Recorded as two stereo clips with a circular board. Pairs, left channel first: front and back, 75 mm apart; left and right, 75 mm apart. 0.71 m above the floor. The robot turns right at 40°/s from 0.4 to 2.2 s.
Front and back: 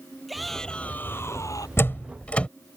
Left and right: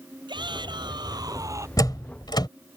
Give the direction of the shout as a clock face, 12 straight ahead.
3 o'clock.